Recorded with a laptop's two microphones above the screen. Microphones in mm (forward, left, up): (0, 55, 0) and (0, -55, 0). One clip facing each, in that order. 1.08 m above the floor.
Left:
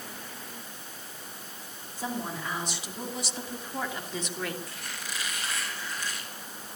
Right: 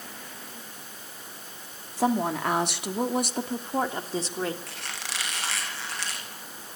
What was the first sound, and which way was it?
A woman speaking, 80° right.